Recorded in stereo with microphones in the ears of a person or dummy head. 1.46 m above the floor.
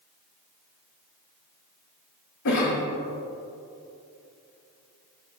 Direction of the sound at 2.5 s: 65° left (ahead or behind).